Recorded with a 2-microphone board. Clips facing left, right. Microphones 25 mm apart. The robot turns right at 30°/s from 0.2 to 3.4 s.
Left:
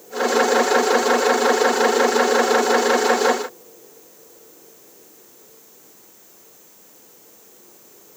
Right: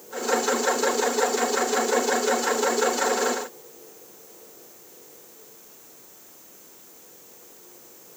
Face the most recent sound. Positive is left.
No sound to turn to.